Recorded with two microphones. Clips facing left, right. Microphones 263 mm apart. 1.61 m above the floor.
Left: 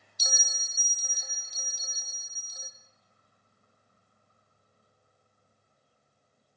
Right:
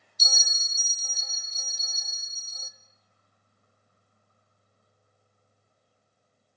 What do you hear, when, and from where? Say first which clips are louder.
0.2 s a bell: left 1 dB; 15° left (ahead or behind), 0.7 m